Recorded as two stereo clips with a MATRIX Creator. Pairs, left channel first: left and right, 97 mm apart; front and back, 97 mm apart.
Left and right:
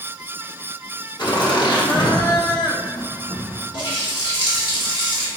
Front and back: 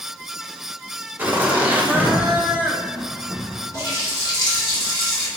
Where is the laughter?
110° left, 1.0 m.